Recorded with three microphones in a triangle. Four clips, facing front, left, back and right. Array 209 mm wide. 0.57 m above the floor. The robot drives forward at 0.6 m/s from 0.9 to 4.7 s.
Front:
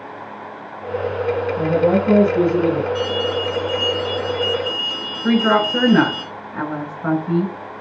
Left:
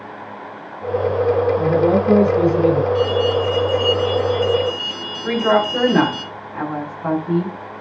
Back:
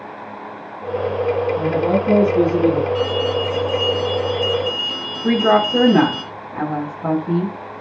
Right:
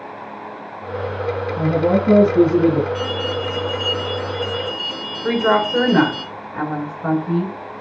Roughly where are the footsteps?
No footsteps in this recording.